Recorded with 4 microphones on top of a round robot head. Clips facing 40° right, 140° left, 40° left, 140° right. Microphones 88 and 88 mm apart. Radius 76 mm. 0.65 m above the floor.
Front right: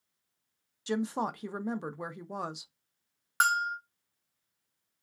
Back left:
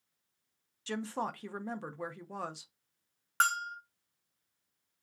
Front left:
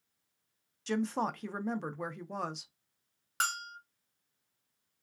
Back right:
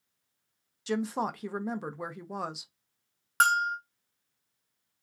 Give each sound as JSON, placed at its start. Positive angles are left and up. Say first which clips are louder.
{"t": 0.9, "sound": "a woman speaking", "louder": "front right 5 dB, back right 2 dB", "azimuth_deg": -70, "distance_m": 0.5}
{"t": 3.4, "sound": "a bell", "louder": "front right 3 dB, back right 12 dB", "azimuth_deg": -115, "distance_m": 0.9}